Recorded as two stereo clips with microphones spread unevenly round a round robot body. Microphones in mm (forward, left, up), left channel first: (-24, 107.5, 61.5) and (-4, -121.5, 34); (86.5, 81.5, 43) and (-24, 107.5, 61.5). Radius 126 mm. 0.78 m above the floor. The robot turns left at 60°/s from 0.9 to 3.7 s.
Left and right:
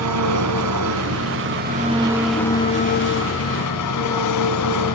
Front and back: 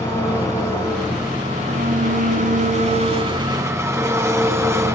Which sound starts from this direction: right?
An engine running, at 0.0 s.